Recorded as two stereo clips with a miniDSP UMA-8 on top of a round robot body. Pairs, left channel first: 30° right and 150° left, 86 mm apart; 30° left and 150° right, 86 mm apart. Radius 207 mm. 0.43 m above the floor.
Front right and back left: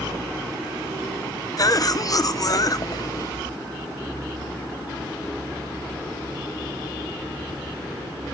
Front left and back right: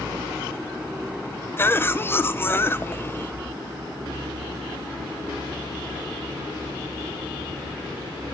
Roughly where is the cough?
Ahead right.